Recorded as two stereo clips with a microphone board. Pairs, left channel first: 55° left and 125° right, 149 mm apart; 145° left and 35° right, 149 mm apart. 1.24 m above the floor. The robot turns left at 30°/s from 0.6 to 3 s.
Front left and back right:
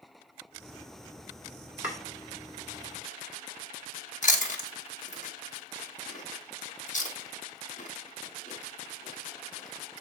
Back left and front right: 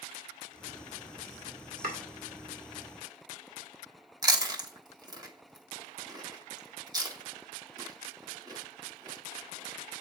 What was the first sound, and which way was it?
Chopping, 45° right.